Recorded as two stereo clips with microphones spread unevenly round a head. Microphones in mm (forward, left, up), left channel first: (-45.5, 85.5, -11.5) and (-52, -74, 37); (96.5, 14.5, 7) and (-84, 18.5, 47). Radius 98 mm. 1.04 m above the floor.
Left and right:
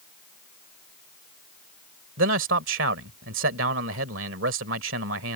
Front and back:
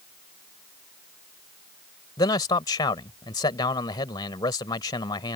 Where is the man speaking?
75° right.